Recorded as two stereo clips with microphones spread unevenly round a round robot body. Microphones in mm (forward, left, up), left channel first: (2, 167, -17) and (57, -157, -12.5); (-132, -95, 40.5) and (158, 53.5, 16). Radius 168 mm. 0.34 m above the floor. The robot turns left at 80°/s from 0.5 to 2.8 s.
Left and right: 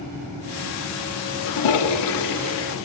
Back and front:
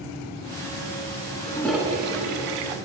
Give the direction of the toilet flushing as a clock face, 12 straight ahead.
7 o'clock.